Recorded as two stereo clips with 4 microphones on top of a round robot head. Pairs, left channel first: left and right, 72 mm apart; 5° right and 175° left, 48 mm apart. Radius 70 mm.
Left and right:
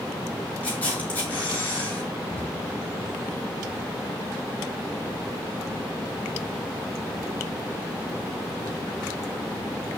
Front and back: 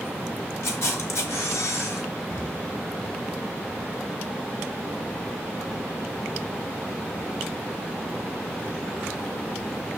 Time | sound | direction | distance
0.6 | a camera shutter | 15° left | 3.5 m
2.3 | an explosion | 15° left | 9.5 m